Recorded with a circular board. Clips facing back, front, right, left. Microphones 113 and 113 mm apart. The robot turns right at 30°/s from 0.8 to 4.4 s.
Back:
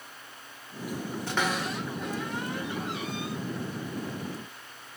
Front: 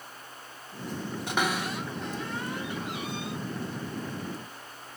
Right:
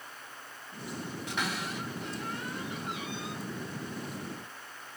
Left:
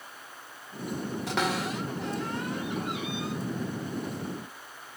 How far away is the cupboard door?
About 3.5 m.